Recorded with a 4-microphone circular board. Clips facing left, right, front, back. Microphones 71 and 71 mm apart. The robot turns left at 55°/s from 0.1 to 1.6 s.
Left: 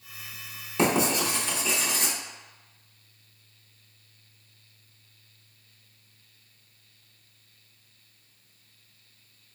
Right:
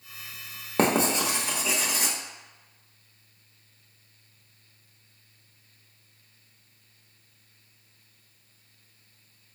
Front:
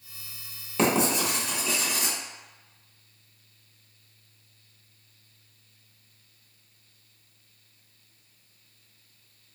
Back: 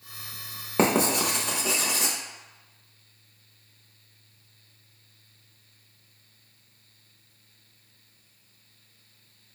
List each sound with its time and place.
0.8 s writing: 130° right, 0.6 m; by 2.1 s 175° right, 0.6 m